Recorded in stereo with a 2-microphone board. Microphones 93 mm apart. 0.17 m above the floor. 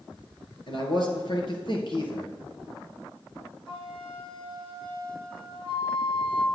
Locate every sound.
0.7 s a man speaking: 55° left (ahead or behind), 2.5 m
3.7 s a flute: 60° left (ahead or behind), 1.8 m